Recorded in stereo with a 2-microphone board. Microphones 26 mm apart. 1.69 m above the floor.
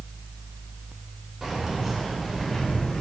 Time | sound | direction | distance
1.4 | keys jangling | 10° right (ahead or behind) | 1.7 m